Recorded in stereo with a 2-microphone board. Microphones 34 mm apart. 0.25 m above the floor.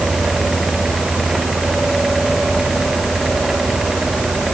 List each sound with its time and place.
Only background noise.